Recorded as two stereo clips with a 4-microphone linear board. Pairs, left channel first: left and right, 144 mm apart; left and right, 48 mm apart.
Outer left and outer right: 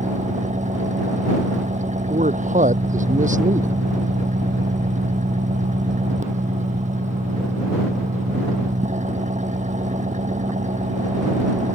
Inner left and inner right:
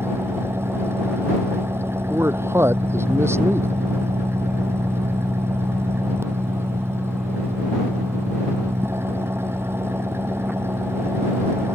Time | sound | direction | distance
0.0 | an engine running | 55° right (ahead or behind) | ?
2.1 | a man speaking | 60° right (ahead or behind) | ?